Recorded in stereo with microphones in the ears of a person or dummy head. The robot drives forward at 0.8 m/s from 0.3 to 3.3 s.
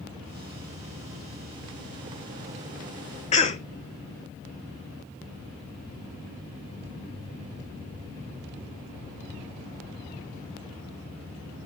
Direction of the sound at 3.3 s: 30° left (ahead or behind).